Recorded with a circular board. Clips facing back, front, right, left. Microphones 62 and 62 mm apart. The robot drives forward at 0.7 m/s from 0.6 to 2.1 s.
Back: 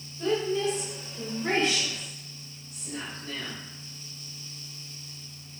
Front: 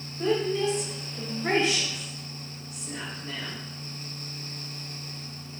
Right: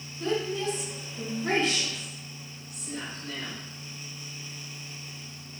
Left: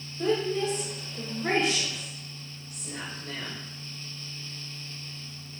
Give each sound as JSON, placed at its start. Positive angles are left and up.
{"t": 0.2, "sound": "a woman speaking", "azimuth_deg": 60, "distance_m": 2.5}